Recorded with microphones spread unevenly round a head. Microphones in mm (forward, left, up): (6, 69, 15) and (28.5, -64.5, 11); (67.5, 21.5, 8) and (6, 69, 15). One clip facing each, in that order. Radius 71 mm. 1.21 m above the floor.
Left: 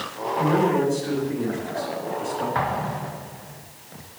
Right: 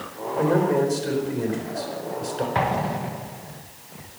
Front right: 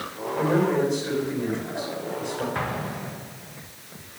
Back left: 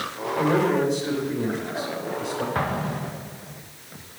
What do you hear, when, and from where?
0.4 s a man speaking: 135° right, 4.5 m
2.5 s an explosion: 150° right, 1.1 m